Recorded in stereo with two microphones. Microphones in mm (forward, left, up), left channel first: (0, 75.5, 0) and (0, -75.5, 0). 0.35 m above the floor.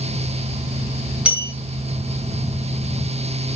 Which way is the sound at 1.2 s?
10° right (ahead or behind).